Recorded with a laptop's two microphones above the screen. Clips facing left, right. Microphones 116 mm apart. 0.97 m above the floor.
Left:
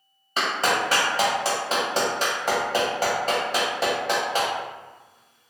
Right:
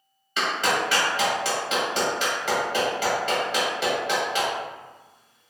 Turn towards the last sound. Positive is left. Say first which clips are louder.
# left 1 dB
turn(degrees=40)  # may be behind; listen again after turning